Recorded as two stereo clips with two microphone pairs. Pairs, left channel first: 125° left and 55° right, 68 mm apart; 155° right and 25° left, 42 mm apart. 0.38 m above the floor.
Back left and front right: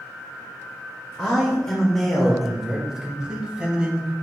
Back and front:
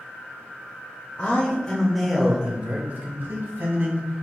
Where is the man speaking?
165° right, 1.1 m; by 4.2 s 20° left, 1.9 m.